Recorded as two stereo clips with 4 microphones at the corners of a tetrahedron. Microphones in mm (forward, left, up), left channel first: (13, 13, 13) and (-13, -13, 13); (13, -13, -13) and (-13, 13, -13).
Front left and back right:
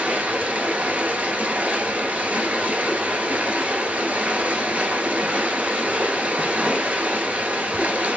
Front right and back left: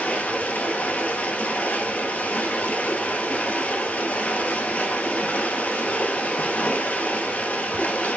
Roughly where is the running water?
Right.